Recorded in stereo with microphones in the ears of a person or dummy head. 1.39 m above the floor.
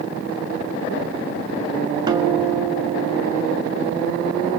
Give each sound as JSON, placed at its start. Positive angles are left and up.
{"t": 2.1, "sound": "a guitar", "side_deg": -20, "distance_m": 2.0}